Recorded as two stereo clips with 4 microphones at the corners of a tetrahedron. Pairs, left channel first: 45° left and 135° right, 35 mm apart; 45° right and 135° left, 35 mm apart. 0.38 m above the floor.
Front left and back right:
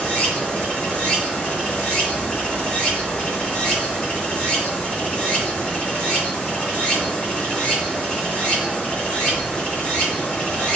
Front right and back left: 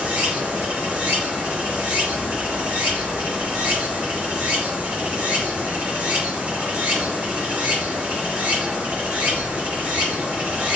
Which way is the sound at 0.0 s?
105° left.